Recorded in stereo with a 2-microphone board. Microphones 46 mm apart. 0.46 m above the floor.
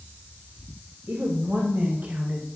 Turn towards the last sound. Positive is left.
turn(degrees=-25)  # may be behind; listen again after turning